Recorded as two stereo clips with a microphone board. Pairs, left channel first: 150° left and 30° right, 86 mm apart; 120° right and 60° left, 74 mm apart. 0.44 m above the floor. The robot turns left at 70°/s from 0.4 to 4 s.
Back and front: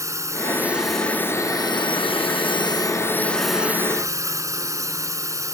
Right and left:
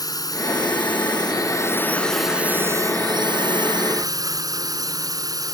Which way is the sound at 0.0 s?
85° right.